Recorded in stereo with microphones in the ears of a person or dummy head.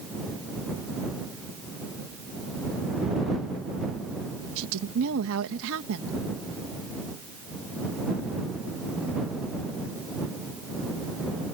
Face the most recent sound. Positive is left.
turn(degrees=-80)